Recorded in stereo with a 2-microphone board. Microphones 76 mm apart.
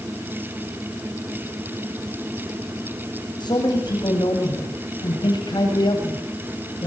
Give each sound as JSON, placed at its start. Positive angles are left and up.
{"t": 3.4, "sound": "a man speaking", "side_deg": 75, "distance_m": 9.5}